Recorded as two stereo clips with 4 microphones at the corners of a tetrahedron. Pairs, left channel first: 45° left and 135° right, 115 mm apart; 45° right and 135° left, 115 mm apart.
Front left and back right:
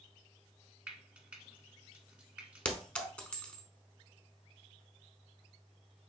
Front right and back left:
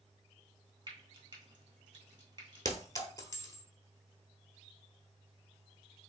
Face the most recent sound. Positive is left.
turn(degrees=-25)